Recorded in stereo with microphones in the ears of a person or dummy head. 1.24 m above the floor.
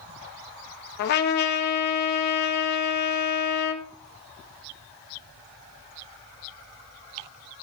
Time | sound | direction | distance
1.0 | a trumpet | 55° left (ahead or behind) | 1.2 m